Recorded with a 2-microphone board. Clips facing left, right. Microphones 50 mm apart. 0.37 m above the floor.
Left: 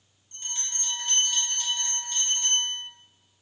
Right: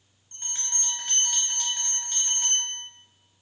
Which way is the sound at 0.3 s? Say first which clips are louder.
Left 1 dB; 65° right (ahead or behind).